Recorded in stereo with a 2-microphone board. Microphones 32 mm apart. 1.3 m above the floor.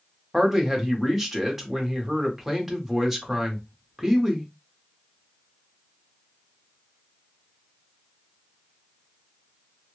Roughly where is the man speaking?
Centre.